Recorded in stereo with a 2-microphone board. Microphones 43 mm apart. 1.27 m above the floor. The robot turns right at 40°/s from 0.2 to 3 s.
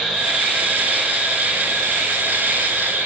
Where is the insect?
160° left, 5 m; by 3.1 s 90° right, 5 m.